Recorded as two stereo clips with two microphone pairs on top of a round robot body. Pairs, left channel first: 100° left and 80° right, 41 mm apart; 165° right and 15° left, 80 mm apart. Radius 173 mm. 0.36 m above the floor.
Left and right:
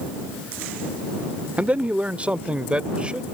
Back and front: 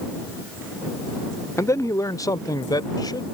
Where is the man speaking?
135° right; by 3.2 s 145° right.